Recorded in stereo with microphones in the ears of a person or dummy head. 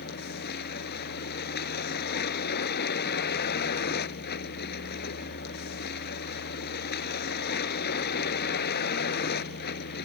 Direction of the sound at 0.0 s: 55° left (ahead or behind).